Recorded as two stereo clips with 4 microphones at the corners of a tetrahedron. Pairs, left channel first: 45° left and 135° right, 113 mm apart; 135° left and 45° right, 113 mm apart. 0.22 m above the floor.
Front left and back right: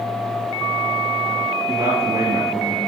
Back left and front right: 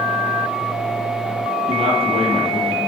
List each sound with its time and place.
1.7 s a man speaking: 75° right, 3.5 m